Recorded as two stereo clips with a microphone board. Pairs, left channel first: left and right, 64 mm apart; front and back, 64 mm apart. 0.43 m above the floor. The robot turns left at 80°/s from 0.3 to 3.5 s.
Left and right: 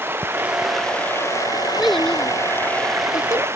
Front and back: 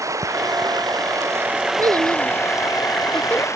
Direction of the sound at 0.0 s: 145° right.